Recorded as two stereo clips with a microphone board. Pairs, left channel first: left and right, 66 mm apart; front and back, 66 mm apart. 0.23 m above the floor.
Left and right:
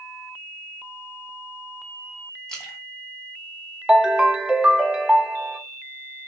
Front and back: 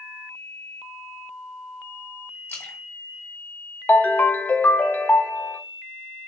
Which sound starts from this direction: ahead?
A splash, at 2.5 s.